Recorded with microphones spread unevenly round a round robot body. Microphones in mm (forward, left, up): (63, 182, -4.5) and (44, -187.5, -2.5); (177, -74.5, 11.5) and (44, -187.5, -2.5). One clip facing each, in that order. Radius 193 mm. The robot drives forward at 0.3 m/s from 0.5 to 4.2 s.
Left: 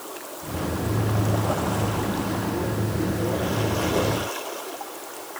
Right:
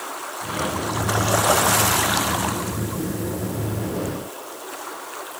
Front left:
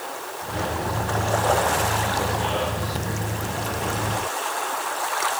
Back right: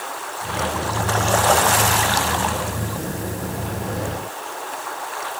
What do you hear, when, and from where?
Only background noise.